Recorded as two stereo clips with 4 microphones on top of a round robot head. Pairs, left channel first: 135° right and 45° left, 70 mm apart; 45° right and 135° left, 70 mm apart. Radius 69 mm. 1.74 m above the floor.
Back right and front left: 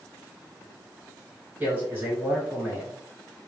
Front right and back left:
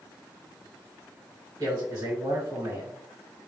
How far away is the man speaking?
About 2 m.